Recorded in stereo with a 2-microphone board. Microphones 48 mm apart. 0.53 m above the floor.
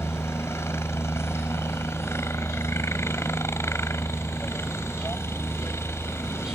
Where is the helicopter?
65° left (ahead or behind).